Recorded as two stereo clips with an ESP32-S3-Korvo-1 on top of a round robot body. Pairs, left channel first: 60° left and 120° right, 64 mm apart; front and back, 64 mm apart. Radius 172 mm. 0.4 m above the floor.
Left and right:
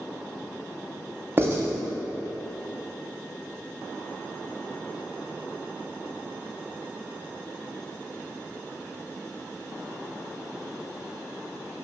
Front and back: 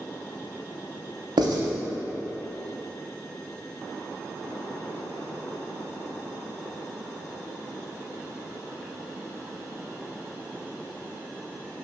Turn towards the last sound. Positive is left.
turn(degrees=180)